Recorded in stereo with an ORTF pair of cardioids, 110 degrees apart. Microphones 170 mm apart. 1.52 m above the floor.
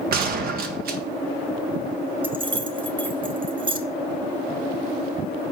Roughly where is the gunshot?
Ahead right.